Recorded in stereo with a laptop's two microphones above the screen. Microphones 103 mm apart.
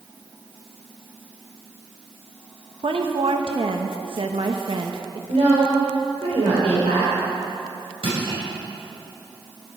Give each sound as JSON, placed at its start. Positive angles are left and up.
{"t": 2.8, "sound": "a woman speaking", "side_deg": -60, "distance_m": 0.9}
{"t": 5.3, "sound": "a woman speaking", "side_deg": -85, "distance_m": 3.0}
{"t": 8.0, "sound": "crushing", "side_deg": -65, "distance_m": 5.5}